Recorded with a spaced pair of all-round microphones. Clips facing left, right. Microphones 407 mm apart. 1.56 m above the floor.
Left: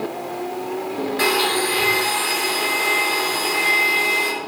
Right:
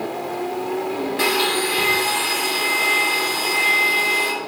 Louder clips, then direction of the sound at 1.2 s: Even; 45° right (ahead or behind).